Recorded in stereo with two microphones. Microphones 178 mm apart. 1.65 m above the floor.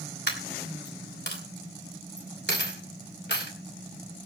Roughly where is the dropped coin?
Left.